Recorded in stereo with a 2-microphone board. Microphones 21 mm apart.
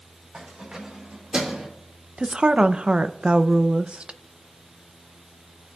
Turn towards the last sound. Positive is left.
turn(degrees=-50)  # may be behind; listen again after turning